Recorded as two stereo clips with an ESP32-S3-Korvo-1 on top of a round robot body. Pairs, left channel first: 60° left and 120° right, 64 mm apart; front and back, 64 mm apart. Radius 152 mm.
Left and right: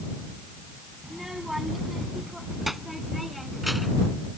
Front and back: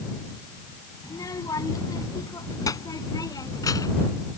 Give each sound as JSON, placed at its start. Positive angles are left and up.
{"t": 1.0, "sound": "a child speaking", "azimuth_deg": -35}